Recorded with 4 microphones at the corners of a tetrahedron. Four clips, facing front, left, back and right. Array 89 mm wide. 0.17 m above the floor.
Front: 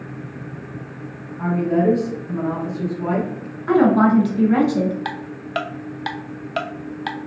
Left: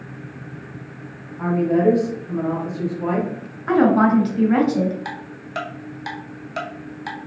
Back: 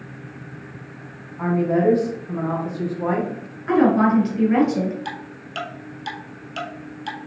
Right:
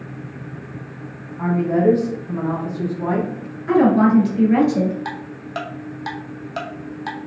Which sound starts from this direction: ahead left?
A woman speaking, at 3.7 s.